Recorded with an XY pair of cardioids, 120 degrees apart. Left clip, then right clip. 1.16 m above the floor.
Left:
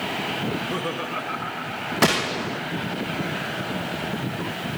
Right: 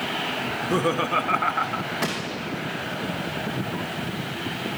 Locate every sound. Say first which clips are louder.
0.5 s laughter: right 3 dB; 30° right, 1.1 m; by 1.9 s 70° right, 0.8 m
2.0 s a gunshot: left 7 dB; 50° left, 1.2 m